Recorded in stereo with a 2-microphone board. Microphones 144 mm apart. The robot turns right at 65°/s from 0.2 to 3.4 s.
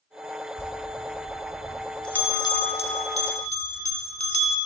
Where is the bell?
85° right, 1.0 m; by 4.6 s 95° left, 1.0 m.